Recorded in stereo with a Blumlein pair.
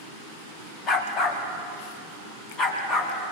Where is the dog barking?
30° left, 3 m; by 3.3 s 35° left, 4.5 m.